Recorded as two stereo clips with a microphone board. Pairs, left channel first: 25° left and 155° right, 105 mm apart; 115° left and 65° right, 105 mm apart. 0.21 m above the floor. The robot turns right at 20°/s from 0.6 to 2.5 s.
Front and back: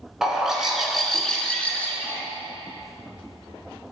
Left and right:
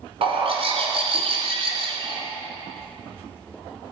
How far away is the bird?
About 1.2 m.